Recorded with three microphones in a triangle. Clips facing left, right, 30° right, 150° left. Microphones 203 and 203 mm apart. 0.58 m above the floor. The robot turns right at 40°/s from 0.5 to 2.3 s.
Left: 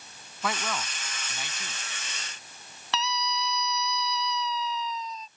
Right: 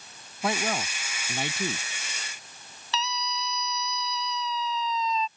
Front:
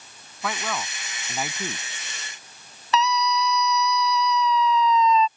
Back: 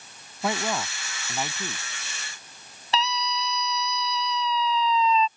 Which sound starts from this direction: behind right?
A man speaking, at 0.4 s.